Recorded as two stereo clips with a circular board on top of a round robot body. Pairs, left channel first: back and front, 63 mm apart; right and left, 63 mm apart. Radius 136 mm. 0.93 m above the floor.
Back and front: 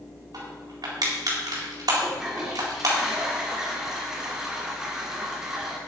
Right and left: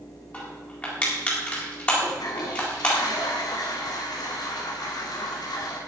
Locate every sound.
0.3 s crushing: 20° right, 4 m
2.0 s a toilet flushing: 80° right, 2.5 m